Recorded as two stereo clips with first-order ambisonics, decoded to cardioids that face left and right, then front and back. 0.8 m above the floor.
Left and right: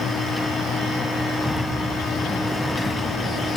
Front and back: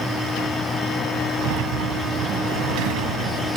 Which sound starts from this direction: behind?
A sliding door, at 1.4 s.